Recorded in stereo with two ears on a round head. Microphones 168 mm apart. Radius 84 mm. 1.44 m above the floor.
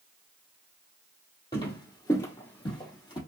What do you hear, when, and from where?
1.5 s footsteps: 20° left (ahead or behind), 1.7 m; by 3.2 s 25° left (ahead or behind), 1.6 m